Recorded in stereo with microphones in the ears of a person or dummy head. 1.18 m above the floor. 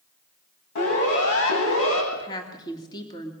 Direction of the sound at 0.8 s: 65° left (ahead or behind).